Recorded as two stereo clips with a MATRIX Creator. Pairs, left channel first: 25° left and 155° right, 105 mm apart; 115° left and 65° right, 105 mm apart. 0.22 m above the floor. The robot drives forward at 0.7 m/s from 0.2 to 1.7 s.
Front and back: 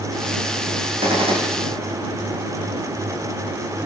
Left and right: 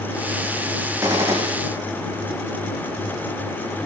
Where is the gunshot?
130° right, 9.5 m.